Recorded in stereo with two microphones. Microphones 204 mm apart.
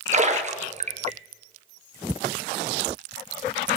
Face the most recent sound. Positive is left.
turn(degrees=-35)  # may be behind; listen again after turning